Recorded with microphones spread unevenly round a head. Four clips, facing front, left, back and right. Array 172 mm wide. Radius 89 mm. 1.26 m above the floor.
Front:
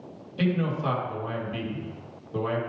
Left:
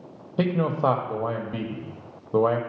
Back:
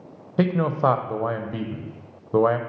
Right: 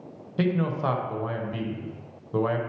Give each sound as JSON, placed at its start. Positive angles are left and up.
{"t": 0.4, "sound": "a man speaking", "azimuth_deg": 150, "distance_m": 0.7}